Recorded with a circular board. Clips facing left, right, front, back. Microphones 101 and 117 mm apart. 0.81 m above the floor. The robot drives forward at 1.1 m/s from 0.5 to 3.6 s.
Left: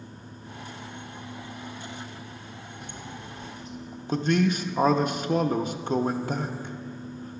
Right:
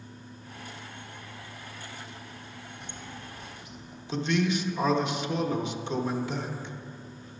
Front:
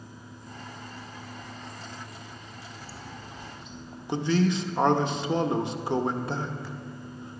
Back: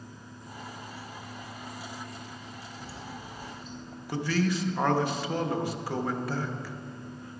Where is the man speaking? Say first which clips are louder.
Left 3 dB, front 3 dB; 60° left, 0.6 m.